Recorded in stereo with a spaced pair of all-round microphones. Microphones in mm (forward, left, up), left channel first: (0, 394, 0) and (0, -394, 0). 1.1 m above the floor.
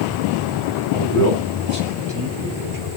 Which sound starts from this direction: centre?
A man speaking, at 0.9 s.